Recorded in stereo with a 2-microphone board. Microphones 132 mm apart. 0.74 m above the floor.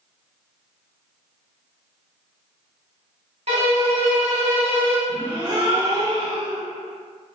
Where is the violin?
55° right (ahead or behind), 1.1 m.